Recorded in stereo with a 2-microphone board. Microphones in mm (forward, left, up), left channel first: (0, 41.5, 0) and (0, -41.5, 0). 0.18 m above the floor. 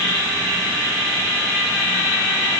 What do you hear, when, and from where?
Only background noise.